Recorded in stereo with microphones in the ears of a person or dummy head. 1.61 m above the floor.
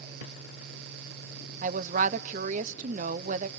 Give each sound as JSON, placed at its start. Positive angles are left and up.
{"t": 1.6, "sound": "a woman speaking", "side_deg": -45, "distance_m": 0.7}